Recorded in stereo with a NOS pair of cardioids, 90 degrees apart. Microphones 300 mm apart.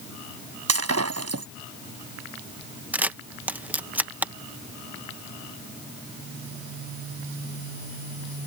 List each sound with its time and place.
0.7 s breaking glass: 55° right
2.9 s a camera shutter: 5° right